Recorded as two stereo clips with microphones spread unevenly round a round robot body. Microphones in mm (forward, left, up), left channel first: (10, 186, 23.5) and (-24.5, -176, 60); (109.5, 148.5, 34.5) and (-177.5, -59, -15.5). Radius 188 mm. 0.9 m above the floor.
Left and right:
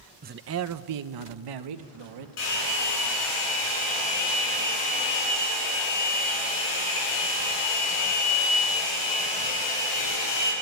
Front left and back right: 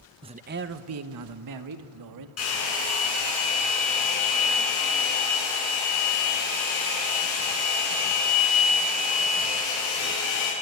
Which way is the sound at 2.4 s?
90° left.